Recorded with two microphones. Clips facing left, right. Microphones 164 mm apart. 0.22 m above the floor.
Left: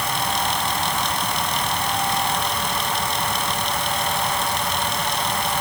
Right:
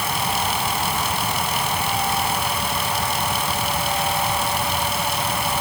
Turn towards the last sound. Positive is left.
No sound to turn to.